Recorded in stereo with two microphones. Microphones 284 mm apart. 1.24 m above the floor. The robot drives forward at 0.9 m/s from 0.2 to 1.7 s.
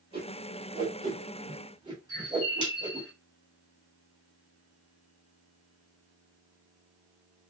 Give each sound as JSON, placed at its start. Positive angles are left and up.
{"t": 0.1, "sound": "a whoosh", "side_deg": -20, "distance_m": 6.5}
{"t": 2.1, "sound": "a bird", "side_deg": 55, "distance_m": 3.0}